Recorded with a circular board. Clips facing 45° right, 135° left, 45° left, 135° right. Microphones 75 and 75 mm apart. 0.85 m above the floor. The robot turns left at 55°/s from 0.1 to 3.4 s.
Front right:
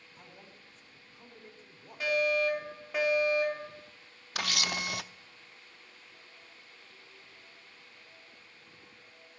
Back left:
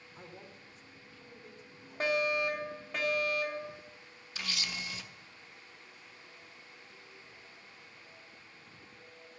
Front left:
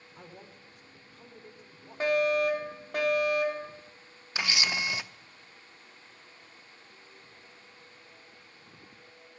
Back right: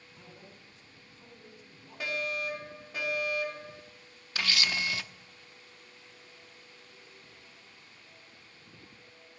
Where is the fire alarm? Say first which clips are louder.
Front right 2 dB, front left 10 dB; 90° left, 3.5 m; by 3.7 s 15° left, 3.5 m.